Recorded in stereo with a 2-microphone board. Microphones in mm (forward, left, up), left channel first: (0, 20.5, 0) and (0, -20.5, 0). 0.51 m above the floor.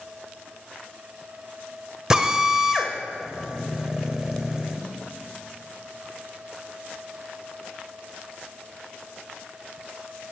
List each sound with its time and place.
2.1 s a drill: 15° right (ahead or behind), 1.2 m